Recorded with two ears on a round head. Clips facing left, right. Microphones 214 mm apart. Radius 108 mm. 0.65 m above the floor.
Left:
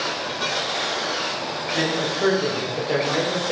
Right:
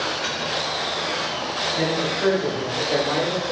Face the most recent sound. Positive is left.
turn(degrees=25)  # may be behind; listen again after turning